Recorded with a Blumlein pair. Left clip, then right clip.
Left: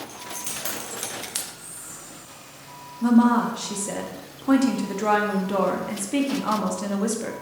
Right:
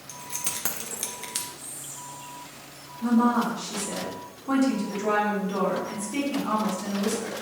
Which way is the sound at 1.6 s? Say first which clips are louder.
Right 1 dB; 10° right.